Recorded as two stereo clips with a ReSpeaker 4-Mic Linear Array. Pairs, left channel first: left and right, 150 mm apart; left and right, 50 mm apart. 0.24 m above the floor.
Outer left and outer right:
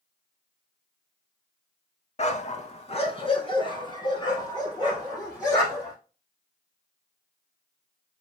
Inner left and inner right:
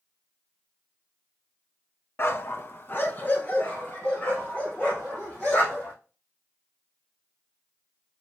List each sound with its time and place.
2.2 s a dog barking: 45° left (ahead or behind), 0.6 m; by 5.9 s 25° left (ahead or behind), 4 m